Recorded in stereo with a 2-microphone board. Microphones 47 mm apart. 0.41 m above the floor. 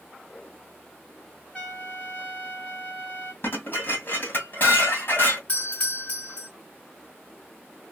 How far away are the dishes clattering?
About 2.0 m.